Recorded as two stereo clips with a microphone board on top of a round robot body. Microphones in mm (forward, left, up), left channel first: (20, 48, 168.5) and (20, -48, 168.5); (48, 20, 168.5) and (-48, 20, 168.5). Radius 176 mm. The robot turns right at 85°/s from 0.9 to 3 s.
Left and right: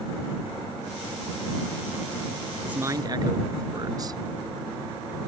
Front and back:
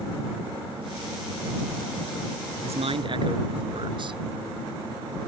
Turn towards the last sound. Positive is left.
turn(degrees=-145)